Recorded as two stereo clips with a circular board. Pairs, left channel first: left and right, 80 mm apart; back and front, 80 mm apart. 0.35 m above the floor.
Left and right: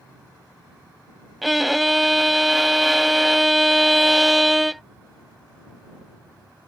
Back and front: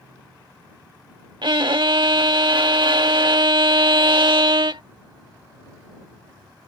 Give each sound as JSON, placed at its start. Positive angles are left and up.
{"t": 1.4, "sound": "a violin", "azimuth_deg": 0}